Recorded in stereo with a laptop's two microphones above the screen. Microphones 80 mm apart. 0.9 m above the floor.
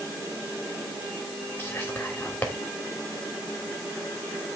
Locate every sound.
1.6 s whispering: 25° left (ahead or behind), 2.5 m